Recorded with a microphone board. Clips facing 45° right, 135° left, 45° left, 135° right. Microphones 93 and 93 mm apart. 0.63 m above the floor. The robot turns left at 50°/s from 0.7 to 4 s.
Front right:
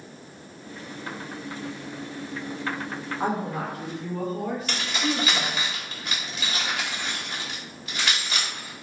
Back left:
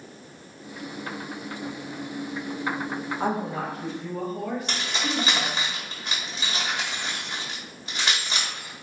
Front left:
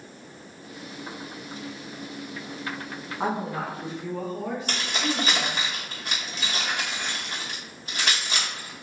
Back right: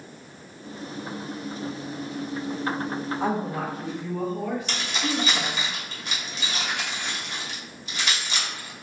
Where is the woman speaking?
35° left, 1.3 m; by 5.7 s 5° right, 1.3 m.